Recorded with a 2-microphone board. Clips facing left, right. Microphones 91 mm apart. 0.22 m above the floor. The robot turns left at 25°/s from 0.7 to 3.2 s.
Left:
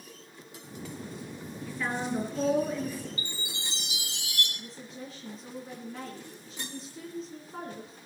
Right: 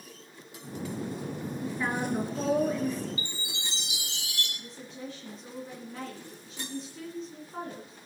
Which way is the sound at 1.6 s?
155° right.